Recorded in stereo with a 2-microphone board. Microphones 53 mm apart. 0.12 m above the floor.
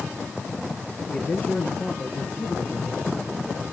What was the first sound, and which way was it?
A man speaking, 25° left (ahead or behind).